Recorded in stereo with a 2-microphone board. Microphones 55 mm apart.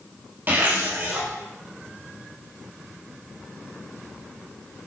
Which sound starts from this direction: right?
A zipper, at 0.5 s.